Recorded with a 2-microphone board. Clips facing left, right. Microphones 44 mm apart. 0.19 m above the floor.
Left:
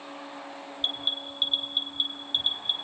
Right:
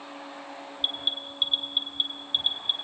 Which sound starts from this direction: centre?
An alarm, at 0.8 s.